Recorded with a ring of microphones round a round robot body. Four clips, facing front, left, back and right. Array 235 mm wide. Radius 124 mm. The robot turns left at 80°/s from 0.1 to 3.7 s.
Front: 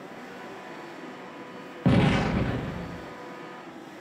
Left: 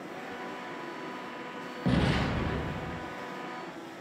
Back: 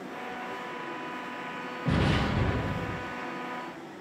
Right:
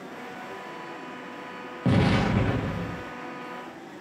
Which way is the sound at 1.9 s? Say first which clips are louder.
Right 5 dB, front 5 dB; 15° right.